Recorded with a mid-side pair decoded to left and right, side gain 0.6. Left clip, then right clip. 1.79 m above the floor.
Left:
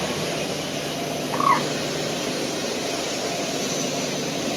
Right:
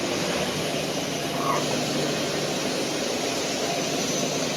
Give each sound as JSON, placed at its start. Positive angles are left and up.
{"t": 1.3, "sound": "a bird", "azimuth_deg": 55, "distance_m": 1.5}